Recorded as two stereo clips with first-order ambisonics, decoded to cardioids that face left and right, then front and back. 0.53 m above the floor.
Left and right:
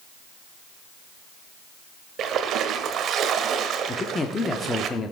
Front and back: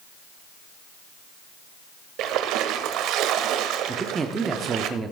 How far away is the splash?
About 0.8 m.